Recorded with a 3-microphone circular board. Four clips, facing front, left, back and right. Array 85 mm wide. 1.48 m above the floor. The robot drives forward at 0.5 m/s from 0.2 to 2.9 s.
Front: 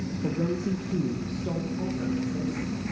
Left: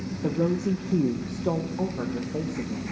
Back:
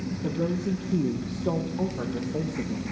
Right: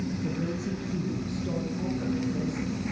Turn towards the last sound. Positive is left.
turn(degrees=145)